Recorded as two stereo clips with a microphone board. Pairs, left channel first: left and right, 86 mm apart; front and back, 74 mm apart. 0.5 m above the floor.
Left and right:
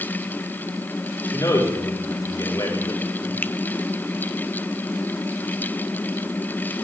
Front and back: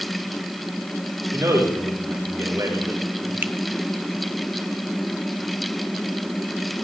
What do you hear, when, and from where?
1.3 s a man speaking: 135° left, 7.5 m
3.4 s a finger snap: 145° left, 0.8 m